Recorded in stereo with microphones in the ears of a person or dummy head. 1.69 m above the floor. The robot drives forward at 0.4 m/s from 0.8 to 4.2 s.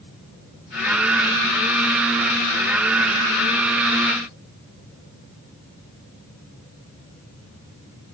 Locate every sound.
Only background noise.